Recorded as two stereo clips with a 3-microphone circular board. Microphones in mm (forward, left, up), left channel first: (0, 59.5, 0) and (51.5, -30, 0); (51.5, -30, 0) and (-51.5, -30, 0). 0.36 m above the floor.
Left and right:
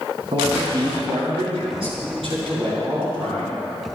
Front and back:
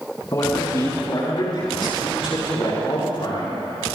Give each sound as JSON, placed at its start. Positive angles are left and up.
{"t": 0.3, "sound": "a man speaking", "azimuth_deg": -50, "distance_m": 4.5}